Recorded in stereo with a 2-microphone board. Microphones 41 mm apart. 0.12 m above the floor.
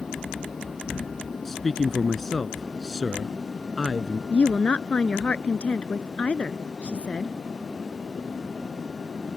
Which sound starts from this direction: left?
A woman speaking, at 4.3 s.